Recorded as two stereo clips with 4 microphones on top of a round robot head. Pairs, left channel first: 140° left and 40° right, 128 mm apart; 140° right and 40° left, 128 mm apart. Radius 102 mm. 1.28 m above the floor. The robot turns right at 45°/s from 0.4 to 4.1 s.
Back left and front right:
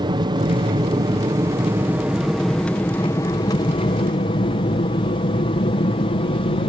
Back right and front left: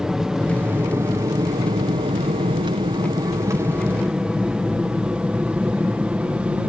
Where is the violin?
I don't hear a violin.